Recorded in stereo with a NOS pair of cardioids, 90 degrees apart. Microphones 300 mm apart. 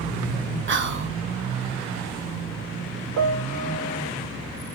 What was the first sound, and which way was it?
Whispering, 40° right.